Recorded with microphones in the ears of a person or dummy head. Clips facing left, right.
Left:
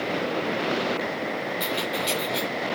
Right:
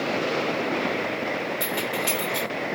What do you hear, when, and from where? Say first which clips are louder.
1.6 s keys jangling: even; centre (ahead or behind), 3.5 m